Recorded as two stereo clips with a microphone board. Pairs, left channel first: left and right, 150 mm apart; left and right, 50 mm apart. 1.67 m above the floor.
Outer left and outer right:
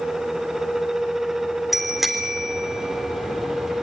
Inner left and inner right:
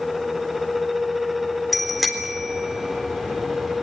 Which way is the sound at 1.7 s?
Centre (ahead or behind).